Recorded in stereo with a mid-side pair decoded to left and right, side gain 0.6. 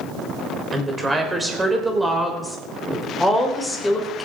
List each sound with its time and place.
0.7 s a woman speaking: 20° right, 4 m; by 4.3 s 15° left, 3.5 m